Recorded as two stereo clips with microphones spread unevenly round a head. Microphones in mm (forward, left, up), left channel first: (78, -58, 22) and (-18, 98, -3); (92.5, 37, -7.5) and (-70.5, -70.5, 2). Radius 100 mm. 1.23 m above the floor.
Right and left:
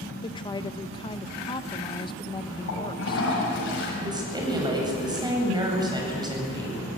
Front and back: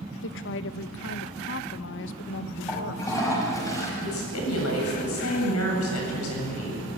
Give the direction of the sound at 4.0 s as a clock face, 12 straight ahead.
10 o'clock.